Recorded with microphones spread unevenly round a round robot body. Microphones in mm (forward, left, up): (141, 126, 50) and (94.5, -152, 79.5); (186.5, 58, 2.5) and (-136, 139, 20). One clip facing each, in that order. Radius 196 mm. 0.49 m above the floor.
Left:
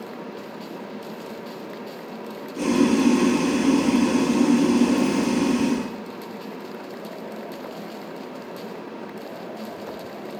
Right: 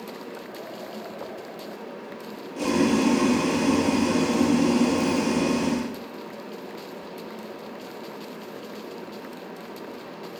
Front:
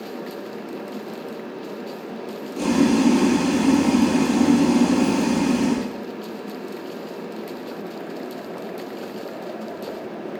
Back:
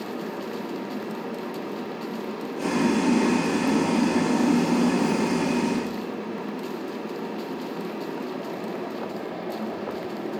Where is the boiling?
20° left, 7 m.